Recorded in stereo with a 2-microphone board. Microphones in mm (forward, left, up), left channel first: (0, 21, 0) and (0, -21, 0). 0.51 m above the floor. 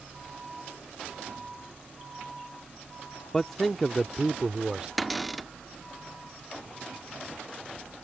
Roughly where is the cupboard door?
Centre.